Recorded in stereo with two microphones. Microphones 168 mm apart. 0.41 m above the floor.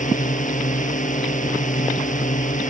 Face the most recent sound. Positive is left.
turn(degrees=50)  # may be behind; listen again after turning